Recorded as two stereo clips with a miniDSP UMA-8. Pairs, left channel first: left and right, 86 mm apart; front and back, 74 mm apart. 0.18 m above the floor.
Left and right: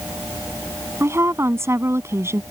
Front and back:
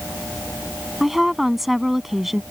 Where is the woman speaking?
95° right.